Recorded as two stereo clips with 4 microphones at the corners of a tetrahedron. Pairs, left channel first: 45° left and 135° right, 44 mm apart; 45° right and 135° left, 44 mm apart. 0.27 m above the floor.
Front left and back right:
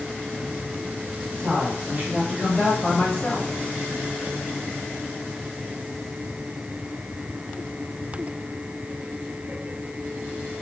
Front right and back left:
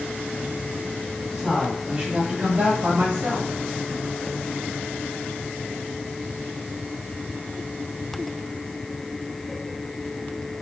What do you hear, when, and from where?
1.3 s a woman speaking: 140° right, 2 m; by 3.5 s 90° left, 1.9 m